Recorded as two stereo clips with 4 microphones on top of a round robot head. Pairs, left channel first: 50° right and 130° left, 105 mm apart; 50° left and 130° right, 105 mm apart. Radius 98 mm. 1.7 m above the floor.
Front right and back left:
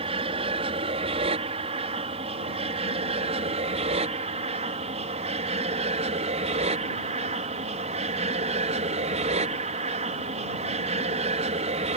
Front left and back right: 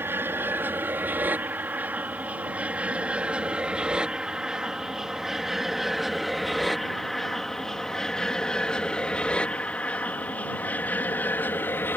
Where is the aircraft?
160° left; by 12.0 s 120° left.